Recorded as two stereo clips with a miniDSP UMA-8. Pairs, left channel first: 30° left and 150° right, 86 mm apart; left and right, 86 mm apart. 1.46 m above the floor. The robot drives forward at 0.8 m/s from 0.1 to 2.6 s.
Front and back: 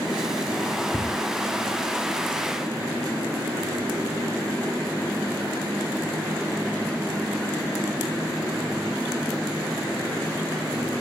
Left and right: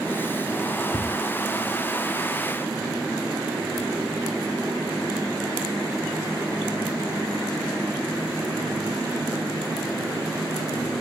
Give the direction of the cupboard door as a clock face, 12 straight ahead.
10 o'clock.